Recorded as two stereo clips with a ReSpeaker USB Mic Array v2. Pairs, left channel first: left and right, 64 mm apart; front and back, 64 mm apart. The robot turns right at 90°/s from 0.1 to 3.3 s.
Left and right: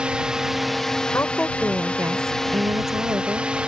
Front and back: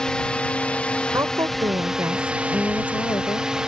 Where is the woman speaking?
140° left; by 3.5 s 25° right.